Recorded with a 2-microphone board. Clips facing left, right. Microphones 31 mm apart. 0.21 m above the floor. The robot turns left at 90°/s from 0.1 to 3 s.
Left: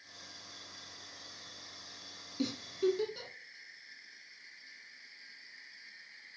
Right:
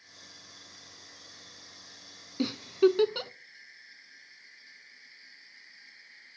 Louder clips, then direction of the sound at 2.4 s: Right 9 dB; 30° right (ahead or behind).